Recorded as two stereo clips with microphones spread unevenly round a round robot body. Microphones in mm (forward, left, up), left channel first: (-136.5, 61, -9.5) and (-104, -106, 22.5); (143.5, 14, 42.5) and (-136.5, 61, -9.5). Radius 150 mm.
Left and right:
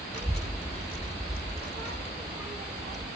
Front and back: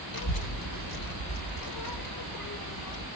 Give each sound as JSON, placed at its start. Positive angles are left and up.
{"t": 0.1, "sound": "a child speaking", "azimuth_deg": 10, "distance_m": 1.7}